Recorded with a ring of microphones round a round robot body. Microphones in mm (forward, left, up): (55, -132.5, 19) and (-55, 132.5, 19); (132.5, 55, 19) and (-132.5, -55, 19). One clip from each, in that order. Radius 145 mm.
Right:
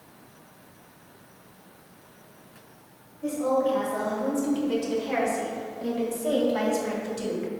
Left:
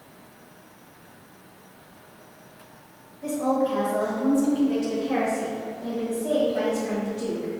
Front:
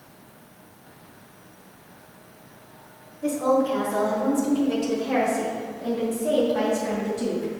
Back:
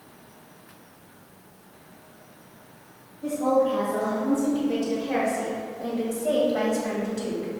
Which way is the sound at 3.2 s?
60° left.